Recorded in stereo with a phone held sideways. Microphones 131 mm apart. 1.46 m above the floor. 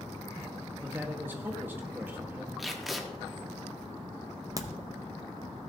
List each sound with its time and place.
0.8 s a man speaking: 15° right (ahead or behind), 1.3 m
2.6 s tape being pulled: centre (ahead or behind), 1.1 m
4.6 s a crack: 25° right (ahead or behind), 0.7 m